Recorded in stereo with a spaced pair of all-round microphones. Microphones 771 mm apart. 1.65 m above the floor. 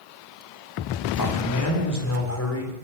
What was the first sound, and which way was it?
A man speaking, 25° left (ahead or behind).